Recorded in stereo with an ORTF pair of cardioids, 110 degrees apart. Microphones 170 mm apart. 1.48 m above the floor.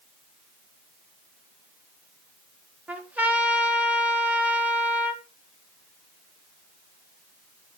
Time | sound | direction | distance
2.9 | a trumpet | 10° right | 1.4 m